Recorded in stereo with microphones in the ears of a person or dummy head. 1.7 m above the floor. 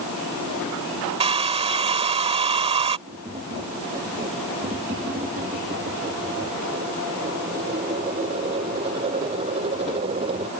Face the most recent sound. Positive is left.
turn(degrees=-30)  # may be behind; listen again after turning